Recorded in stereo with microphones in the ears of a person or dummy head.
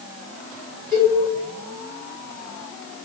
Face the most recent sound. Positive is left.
turn(degrees=-35)  # may be behind; listen again after turning